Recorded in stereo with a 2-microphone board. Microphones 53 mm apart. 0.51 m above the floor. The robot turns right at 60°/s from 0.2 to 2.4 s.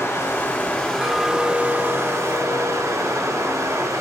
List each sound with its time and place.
0.0 s running water: 120° left, 4.5 m; by 4.0 s 105° right, 4.5 m
1.0 s a clink: 25° right, 3.5 m; by 3.9 s 60° left, 3.5 m